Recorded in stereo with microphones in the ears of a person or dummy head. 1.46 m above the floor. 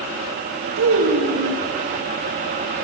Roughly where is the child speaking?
Right.